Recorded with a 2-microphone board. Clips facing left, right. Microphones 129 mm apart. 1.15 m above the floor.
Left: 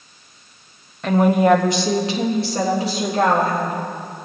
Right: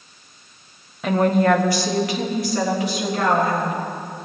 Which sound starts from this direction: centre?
A woman speaking, at 1.0 s.